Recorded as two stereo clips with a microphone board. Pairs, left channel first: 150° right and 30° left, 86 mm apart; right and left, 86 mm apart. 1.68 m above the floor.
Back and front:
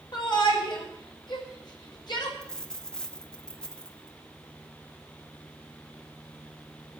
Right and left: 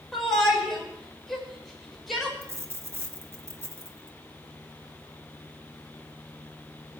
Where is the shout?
Straight behind, 5.5 m.